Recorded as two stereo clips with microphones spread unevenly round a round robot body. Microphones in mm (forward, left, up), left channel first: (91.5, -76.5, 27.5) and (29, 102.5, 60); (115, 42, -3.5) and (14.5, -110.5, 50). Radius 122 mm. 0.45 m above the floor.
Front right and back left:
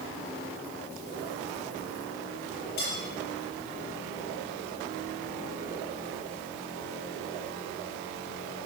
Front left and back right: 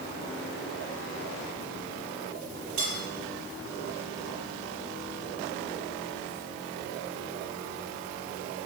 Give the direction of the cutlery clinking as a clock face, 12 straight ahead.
4 o'clock.